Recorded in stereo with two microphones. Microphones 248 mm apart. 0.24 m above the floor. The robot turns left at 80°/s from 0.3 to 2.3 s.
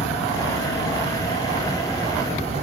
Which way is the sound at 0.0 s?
125° left.